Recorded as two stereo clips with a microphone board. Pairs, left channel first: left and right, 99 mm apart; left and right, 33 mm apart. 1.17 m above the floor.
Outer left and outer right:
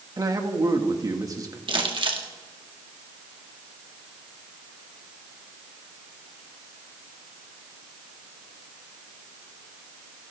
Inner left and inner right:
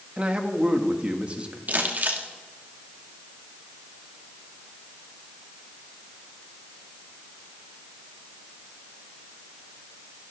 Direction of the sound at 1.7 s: 55° right (ahead or behind).